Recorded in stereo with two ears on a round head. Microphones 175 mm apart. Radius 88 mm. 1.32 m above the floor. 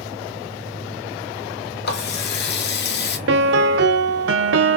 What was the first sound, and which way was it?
A running tap, 60° left (ahead or behind).